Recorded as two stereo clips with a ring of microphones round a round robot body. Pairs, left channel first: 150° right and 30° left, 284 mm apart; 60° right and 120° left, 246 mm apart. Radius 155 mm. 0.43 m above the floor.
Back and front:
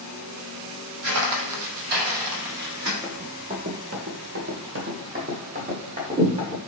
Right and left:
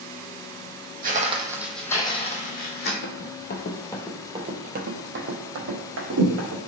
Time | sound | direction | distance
1.0 | footsteps | 70° left | 0.8 m
3.0 | running footsteps | 45° right | 0.7 m